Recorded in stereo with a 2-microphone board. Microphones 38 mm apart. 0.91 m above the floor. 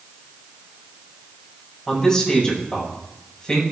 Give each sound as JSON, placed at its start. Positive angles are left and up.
{"t": 1.9, "sound": "a man speaking", "side_deg": 20, "distance_m": 6.0}